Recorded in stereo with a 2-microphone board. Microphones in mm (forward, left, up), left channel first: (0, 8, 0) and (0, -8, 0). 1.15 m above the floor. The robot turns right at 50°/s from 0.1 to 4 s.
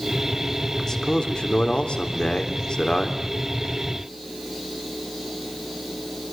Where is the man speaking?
20° left, 3.5 m; by 3.2 s 145° left, 3.5 m.